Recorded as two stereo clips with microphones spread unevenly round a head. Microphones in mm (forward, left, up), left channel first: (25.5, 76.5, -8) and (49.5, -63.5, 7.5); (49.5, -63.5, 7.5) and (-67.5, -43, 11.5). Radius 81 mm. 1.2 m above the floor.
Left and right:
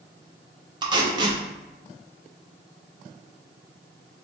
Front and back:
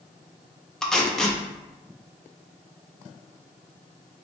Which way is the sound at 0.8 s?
95° right.